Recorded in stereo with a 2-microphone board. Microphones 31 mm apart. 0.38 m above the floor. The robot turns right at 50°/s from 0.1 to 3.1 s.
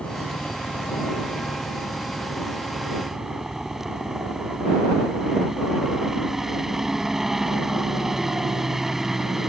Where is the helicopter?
40° left; by 9.5 s 170° right.